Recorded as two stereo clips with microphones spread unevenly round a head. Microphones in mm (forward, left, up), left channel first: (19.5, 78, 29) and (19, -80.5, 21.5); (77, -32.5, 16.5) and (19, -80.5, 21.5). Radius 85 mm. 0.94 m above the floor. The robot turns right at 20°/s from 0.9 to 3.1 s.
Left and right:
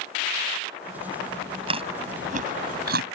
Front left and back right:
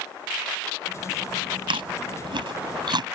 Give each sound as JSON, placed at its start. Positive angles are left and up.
{"t": 1.7, "sound": "chewing", "azimuth_deg": -150}